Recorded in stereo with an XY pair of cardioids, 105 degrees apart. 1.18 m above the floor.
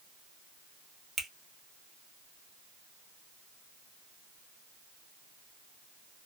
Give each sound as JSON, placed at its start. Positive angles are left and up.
{"t": 1.2, "sound": "a finger snap", "azimuth_deg": -40, "distance_m": 1.2}